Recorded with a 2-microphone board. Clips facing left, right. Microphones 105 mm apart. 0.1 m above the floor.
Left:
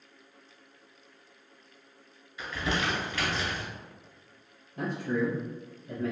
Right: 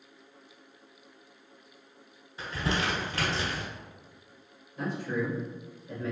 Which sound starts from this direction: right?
Crumpling, at 2.4 s.